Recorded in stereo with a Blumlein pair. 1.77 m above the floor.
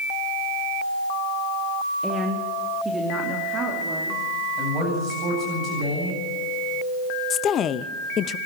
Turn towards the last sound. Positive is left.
turn(degrees=25)